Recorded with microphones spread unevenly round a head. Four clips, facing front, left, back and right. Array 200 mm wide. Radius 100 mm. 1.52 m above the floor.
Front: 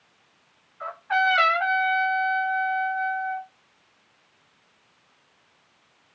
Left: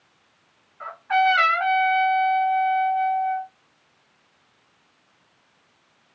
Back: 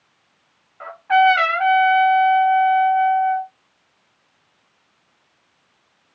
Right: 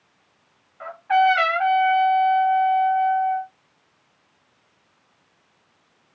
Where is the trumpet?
140° right, 1.6 m.